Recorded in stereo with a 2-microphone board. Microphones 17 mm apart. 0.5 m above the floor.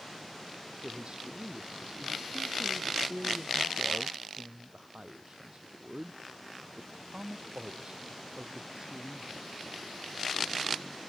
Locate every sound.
0.8 s a man speaking: 55° right (ahead or behind)